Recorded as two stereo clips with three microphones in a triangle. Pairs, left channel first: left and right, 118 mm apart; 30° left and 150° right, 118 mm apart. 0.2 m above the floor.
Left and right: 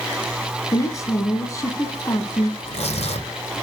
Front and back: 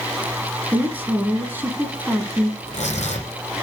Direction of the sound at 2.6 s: 55° left.